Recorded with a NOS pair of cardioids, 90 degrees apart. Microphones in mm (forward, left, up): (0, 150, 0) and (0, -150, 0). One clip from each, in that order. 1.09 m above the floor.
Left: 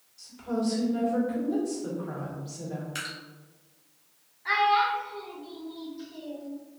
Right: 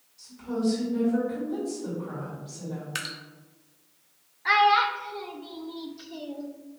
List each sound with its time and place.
0.2 s a woman speaking: 25° left, 1.9 m
3.0 s dripping: 35° right, 0.7 m
4.5 s a child speaking: 35° right, 0.5 m